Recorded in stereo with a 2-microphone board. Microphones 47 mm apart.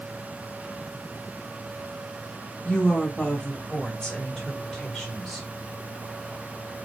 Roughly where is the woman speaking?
Left.